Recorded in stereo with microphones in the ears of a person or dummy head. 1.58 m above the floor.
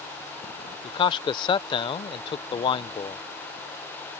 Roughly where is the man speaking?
Left.